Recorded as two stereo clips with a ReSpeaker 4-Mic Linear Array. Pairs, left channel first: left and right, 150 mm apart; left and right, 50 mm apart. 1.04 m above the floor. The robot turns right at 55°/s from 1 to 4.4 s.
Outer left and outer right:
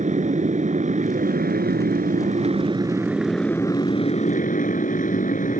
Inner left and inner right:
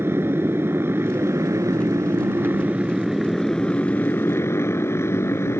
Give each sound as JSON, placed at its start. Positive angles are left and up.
{"t": 0.0, "sound": "a motorcycle", "azimuth_deg": -125}